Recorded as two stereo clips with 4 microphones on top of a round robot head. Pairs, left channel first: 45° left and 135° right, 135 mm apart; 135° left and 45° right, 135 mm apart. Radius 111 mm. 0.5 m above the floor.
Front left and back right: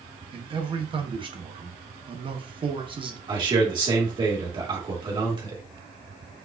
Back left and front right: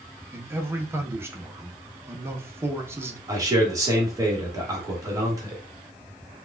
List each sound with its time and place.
0.3 s a man speaking: 110° right, 0.9 m
3.3 s a man speaking: 100° right, 1.4 m